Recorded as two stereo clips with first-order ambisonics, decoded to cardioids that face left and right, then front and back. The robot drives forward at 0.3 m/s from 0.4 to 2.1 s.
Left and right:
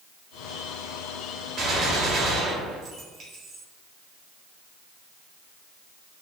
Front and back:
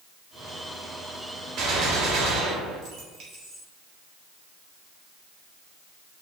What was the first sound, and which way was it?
A gunshot, 135° right.